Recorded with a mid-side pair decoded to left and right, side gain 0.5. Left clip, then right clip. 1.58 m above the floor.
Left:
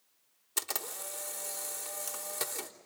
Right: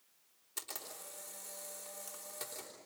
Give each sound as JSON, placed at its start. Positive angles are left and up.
{"t": 0.6, "sound": "a camera shutter", "azimuth_deg": 60, "distance_m": 3.5}